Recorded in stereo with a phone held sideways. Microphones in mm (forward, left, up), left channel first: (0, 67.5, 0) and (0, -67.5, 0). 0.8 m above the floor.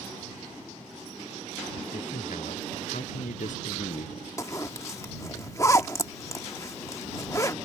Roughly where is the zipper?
Left.